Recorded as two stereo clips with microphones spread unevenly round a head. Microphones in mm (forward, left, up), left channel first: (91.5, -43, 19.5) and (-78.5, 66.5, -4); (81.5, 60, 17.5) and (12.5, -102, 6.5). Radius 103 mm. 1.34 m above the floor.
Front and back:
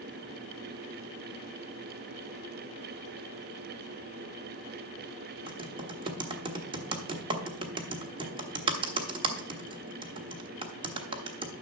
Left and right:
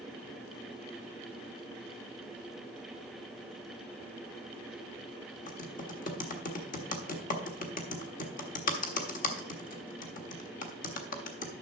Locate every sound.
5.5 s typing on a keyboard: 80° left, 1.2 m